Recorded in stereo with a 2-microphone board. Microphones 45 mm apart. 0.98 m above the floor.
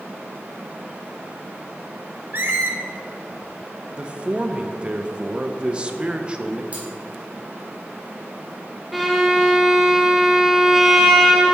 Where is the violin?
Centre (ahead or behind), 0.8 m.